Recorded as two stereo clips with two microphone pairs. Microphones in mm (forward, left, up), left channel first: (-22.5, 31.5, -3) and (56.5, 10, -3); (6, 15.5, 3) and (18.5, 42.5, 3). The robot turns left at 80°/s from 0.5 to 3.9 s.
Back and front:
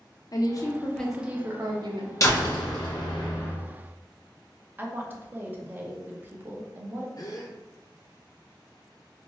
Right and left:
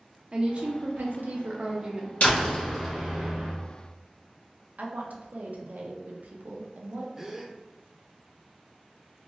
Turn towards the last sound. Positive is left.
turn(degrees=135)